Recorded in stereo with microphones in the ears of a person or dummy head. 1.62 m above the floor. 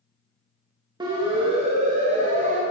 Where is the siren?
15° right (ahead or behind), 2.5 m; by 2.6 s 40° right (ahead or behind), 2.5 m.